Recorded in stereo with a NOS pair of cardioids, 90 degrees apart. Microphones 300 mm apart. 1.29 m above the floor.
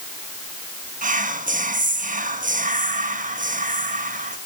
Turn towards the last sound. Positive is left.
turn(degrees=-25)